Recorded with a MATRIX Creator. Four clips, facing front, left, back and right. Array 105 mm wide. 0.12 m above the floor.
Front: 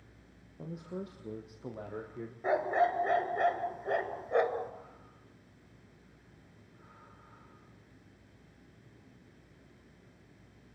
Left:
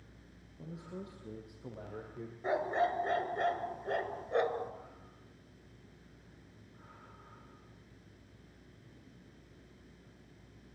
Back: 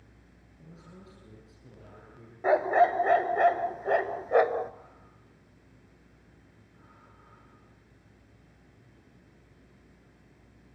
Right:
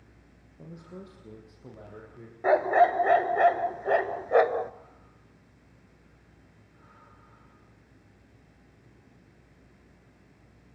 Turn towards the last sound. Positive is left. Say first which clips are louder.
# right 11 dB, back 6 dB
turn(degrees=-120)